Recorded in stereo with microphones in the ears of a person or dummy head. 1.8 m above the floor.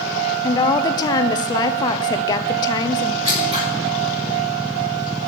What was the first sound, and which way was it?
A woman speaking, 20° left (ahead or behind).